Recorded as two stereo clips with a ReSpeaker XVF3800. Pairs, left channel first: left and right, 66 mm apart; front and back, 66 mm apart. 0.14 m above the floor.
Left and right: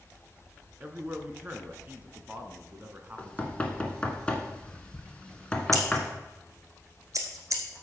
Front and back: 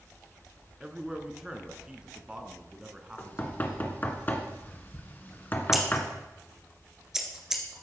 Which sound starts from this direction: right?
Scissors, at 5.7 s.